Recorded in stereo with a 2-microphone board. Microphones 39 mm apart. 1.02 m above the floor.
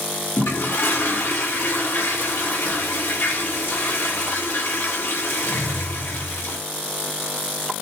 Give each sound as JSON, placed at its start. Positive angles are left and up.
{"t": 0.4, "sound": "a toilet flushing", "side_deg": 75, "distance_m": 4.0}